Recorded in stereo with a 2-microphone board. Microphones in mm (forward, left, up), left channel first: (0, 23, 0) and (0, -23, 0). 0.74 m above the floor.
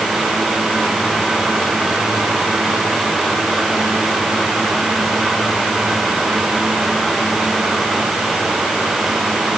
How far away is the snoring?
No snoring in this recording.